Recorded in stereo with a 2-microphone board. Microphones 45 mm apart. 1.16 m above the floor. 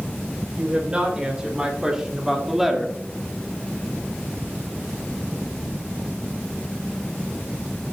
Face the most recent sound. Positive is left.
turn(degrees=0)  # may be behind; listen again after turning